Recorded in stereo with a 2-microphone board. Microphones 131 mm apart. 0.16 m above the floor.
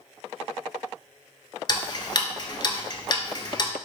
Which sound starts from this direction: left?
Ticking, at 1.7 s.